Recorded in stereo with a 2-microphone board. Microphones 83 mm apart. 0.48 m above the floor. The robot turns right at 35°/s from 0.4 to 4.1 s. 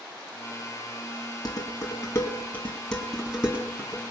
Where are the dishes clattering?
55° left (ahead or behind), 2.5 m; by 4.0 s 30° right (ahead or behind), 2.5 m.